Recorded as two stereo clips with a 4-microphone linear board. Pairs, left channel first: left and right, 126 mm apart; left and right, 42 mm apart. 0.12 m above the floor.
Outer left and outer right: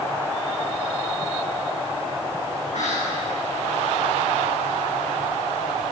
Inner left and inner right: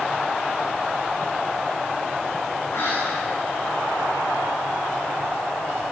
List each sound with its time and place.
2.7 s whispering: 75° left (ahead or behind), 7.5 m